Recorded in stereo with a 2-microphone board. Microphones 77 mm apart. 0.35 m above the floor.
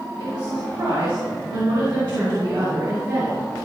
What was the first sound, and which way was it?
A woman speaking, 75° right (ahead or behind).